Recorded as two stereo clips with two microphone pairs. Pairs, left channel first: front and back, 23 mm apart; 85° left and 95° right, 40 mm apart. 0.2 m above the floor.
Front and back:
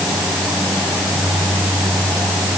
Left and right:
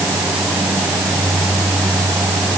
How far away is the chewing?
No chewing in this recording.